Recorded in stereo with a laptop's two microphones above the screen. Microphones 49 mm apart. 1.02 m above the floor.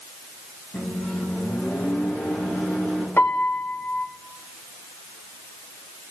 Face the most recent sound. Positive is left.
turn(degrees=45)  # may be behind; listen again after turning